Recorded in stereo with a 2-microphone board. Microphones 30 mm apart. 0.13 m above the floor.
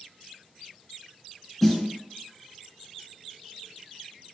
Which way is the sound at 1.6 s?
10° left (ahead or behind).